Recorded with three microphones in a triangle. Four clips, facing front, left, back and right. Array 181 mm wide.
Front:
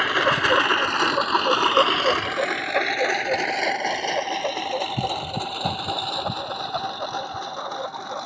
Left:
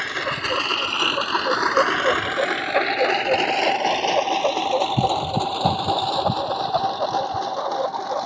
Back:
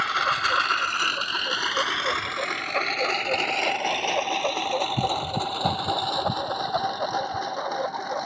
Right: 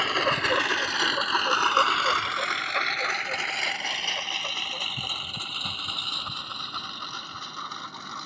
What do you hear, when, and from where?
0.0 s a lawn mower: 10° right; by 8.3 s 100° left